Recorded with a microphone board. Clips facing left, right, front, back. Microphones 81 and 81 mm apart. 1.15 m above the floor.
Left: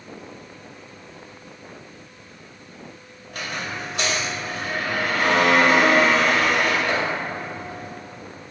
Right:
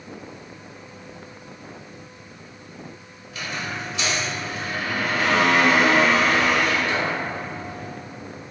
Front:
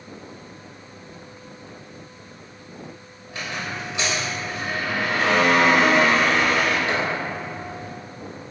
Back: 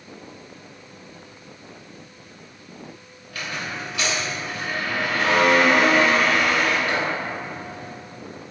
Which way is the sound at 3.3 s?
60° left.